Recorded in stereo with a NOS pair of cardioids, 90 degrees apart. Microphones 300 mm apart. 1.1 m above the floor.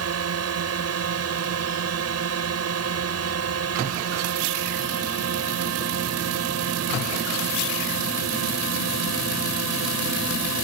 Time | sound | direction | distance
0.0 | a drone | 55° right | ?